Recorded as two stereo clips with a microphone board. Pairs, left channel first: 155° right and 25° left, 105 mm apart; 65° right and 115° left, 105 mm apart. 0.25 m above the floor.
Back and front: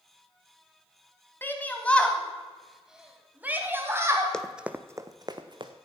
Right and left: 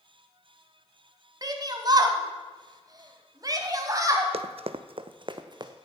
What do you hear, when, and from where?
1.4 s a shout: 140° left, 1.8 m; by 4.3 s 70° left, 1.8 m
4.3 s running footsteps: 120° left, 0.6 m; by 5.7 s 65° left, 1.1 m